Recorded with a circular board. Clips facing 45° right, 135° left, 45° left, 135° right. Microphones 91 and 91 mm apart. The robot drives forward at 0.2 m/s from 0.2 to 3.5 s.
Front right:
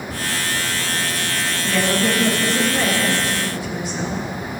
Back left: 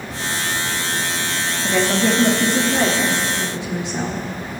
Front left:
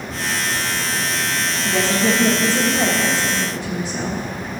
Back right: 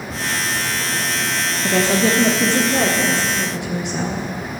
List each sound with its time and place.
1.6 s a woman speaking: 150° right, 0.9 m; by 4.2 s 160° right, 1.3 m